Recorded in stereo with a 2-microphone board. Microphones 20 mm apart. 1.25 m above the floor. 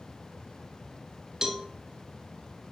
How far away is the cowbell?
About 3 m.